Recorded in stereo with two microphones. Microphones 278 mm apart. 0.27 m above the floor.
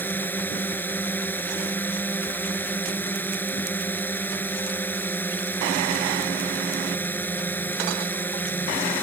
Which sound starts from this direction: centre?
A drone, at 0.0 s.